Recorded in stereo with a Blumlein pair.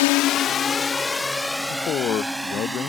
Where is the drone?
50° left; by 2.9 s 5° right.